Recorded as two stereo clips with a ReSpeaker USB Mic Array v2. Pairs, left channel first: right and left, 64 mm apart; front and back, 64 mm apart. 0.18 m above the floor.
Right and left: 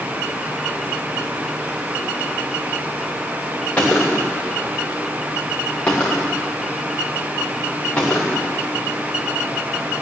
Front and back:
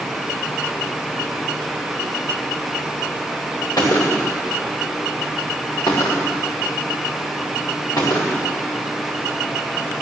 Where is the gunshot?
20° right, 3 m.